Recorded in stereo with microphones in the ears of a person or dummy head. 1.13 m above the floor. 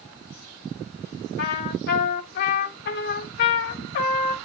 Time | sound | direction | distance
1.4 | a trumpet | 55° left (ahead or behind) | 1.6 m